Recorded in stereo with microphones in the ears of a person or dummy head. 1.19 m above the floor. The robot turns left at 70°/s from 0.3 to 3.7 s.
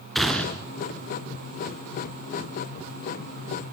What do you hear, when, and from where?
0.1 s a gunshot: 5° left (ahead or behind), 2 m; by 0.7 s 25° left (ahead or behind), 2 m